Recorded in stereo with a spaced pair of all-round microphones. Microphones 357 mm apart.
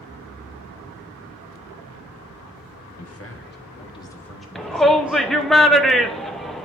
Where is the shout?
Centre (ahead or behind), 0.5 m.